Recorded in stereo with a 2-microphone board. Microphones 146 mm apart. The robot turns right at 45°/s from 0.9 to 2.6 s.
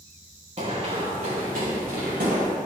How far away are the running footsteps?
About 3.5 m.